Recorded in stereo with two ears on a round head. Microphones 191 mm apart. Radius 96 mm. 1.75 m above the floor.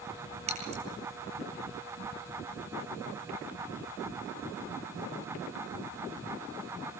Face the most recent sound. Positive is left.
turn(degrees=-30)  # may be behind; listen again after turning